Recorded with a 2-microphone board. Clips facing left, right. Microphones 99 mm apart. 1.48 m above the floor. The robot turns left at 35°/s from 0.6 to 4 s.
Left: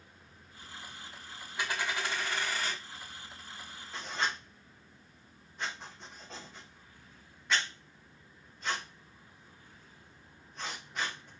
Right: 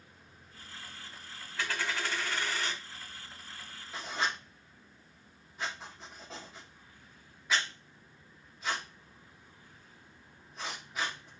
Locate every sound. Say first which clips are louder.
1.6 s a dropped coin: even; 20° left (ahead or behind), 1.3 m; by 2.8 s 10° left (ahead or behind), 1.3 m
3.9 s writing: right 1 dB; 5° right (ahead or behind), 1.1 m